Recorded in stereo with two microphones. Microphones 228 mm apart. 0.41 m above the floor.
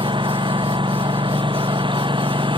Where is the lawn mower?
20° right (ahead or behind).